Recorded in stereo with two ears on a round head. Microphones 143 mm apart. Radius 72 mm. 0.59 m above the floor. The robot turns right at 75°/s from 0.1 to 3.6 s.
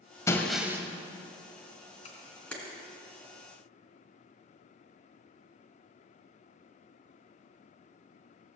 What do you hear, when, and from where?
0.3 s breaking glass: 160° left, 1.5 m; by 0.8 s 160° right, 1.5 m
2.0 s a camera shutter: 45° left (ahead or behind), 3 m; by 2.5 s 5° left (ahead or behind), 3 m